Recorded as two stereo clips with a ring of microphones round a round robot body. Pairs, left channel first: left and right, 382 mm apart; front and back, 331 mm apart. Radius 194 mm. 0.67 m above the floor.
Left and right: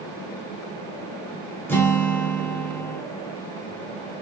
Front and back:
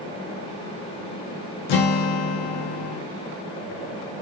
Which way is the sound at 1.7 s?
5° left.